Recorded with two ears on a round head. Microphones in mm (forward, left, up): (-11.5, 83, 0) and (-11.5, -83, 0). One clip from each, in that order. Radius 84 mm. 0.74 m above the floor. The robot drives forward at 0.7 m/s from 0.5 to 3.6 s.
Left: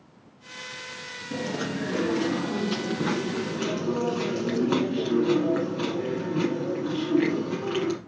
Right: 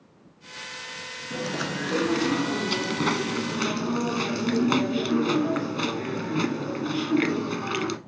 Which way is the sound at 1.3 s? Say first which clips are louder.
Right 1 dB; 45° right (ahead or behind).